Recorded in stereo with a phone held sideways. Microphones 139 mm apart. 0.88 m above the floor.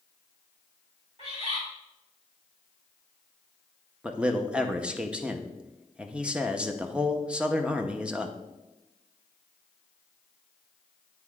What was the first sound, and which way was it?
A bird, 50° right (ahead or behind).